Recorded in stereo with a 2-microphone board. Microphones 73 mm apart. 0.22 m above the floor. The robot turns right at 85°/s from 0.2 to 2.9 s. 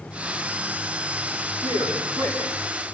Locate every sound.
1.6 s a man speaking: 120° right, 9.5 m; by 2.4 s 55° right, 9.5 m